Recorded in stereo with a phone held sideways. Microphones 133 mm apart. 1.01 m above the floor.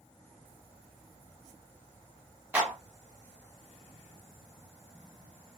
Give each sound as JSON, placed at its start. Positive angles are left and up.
{"t": 2.5, "sound": "a clap", "side_deg": -10, "distance_m": 1.0}